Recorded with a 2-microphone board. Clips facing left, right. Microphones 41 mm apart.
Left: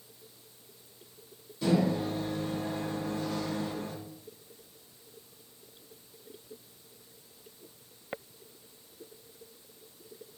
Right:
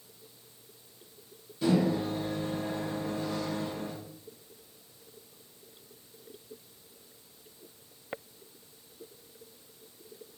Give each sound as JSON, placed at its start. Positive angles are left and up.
{"t": 1.6, "sound": "a microwave", "side_deg": -20, "distance_m": 2.0}